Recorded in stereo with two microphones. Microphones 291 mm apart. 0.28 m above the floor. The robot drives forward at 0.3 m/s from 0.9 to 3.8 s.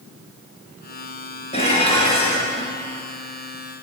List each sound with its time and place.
1.5 s dishes clattering: 20° left (ahead or behind), 2.5 m